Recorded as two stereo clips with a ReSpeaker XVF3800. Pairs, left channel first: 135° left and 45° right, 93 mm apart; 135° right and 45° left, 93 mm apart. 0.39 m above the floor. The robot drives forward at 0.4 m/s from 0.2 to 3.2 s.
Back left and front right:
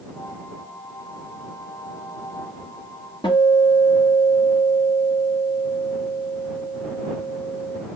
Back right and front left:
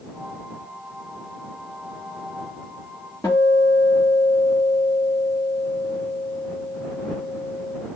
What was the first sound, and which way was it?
A guitar, 165° left.